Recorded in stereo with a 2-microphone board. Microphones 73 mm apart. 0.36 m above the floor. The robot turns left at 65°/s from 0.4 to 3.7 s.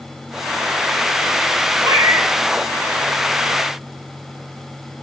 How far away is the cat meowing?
About 0.7 m.